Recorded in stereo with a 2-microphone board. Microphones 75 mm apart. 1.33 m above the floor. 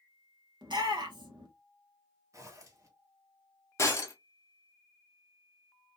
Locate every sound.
0.6 s a shout: 85° right, 1.1 m
2.3 s a zipper: 45° right (ahead or behind), 0.9 m
3.8 s breaking glass: 40° left (ahead or behind), 1.1 m